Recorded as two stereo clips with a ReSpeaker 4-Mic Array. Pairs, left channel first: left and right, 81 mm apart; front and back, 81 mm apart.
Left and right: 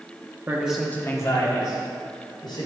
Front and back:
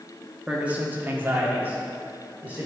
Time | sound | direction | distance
0.5 | a man speaking | 110° right | 0.8 m